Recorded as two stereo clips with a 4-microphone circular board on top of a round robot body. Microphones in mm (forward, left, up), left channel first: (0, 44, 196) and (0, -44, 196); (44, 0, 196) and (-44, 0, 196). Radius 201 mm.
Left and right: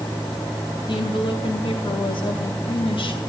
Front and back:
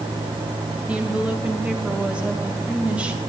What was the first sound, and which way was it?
A woman speaking, 105° left.